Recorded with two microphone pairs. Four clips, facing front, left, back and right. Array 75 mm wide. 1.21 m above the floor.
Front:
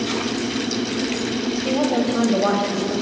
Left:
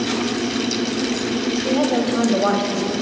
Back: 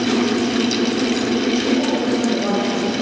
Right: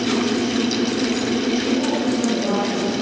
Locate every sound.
1.6 s a woman speaking: 65° left, 5.5 m